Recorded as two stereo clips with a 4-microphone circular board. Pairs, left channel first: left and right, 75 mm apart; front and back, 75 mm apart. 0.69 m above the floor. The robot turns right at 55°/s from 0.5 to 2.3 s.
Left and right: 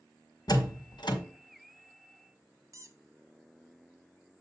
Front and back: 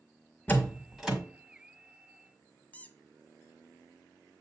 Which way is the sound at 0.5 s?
65° left.